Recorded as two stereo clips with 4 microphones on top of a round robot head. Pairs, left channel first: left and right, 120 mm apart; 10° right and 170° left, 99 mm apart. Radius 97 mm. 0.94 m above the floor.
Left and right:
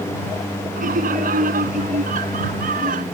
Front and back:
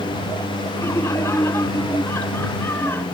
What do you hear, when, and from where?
0.8 s laughter: 80° right; by 3.0 s 85° right